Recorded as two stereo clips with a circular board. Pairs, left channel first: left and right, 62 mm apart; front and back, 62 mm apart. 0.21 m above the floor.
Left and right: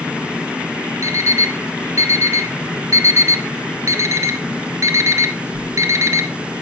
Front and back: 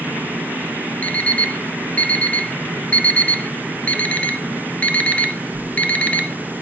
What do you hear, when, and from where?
1.0 s an alarm clock: 65° right, 1.1 m